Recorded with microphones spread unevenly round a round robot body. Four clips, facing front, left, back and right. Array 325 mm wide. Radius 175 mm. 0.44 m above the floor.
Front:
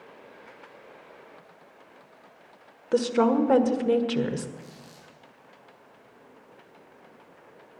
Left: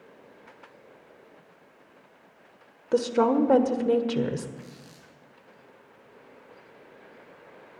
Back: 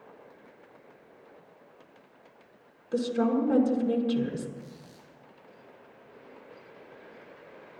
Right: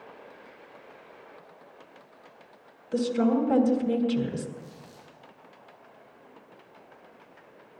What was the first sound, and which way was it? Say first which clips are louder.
A woman speaking: left 2 dB, front 5 dB; 45° left.